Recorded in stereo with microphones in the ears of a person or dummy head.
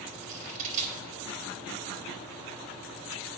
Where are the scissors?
40° right (ahead or behind), 3 m.